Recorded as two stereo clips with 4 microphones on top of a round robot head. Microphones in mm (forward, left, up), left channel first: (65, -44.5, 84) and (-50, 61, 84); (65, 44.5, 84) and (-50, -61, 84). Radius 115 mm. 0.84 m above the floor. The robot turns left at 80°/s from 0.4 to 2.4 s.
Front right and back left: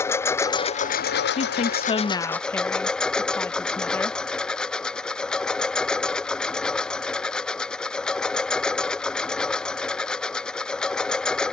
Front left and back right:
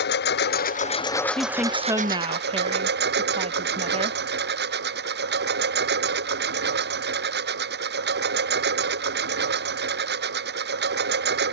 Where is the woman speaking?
30° right; by 4.2 s 115° right.